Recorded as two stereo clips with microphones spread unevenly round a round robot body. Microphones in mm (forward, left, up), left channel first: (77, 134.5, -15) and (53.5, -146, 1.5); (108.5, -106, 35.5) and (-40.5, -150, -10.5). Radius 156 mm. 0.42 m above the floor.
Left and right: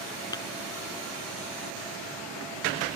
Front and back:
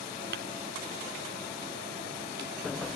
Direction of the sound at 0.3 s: 165° left.